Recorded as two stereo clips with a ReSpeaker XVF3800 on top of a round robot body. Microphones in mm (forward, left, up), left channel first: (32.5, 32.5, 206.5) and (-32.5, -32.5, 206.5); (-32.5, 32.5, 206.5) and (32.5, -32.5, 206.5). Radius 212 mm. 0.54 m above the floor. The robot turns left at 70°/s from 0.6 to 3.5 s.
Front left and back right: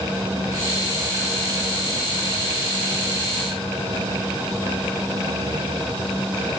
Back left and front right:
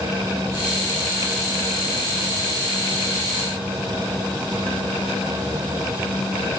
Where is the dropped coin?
I don't hear a dropped coin.